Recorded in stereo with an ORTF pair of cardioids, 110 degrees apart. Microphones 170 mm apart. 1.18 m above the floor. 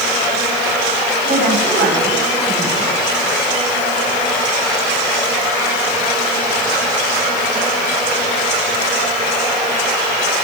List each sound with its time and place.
1.2 s a woman speaking: 60° right, 7.5 m